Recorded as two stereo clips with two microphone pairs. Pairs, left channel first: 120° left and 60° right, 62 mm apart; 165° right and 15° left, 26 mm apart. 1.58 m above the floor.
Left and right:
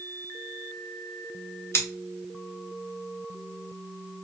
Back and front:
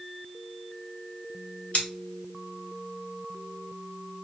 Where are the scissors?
165° left, 2.5 m.